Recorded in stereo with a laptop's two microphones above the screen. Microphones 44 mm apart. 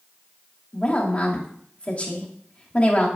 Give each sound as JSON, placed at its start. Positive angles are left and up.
{"t": 0.7, "sound": "a woman speaking", "side_deg": 30, "distance_m": 2.5}